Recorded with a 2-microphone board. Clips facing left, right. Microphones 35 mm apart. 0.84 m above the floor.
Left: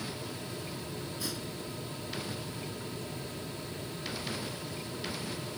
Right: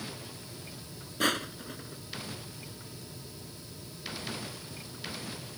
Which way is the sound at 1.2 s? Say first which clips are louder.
Right 8 dB; 60° right (ahead or behind).